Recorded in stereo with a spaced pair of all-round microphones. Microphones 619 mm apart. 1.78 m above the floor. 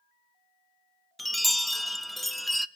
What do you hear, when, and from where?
1.2 s a chime: centre (ahead or behind), 0.5 m